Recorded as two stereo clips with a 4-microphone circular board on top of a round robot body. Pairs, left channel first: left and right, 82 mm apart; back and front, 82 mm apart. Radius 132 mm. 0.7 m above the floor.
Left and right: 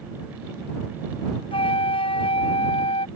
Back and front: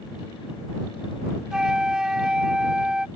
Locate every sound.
1.5 s a flute: 85° left